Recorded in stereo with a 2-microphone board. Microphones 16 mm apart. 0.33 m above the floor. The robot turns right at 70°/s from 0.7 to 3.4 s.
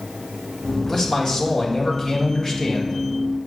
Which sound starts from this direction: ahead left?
A man speaking, at 0.9 s.